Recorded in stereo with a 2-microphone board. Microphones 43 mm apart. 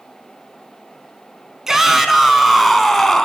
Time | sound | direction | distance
1.7 | a shout | 10° right (ahead or behind) | 3.5 m